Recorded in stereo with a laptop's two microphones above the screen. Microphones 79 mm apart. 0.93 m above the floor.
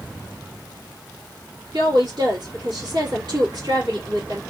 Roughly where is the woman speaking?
Right.